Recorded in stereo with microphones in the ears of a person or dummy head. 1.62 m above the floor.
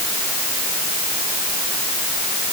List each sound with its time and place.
Only background noise.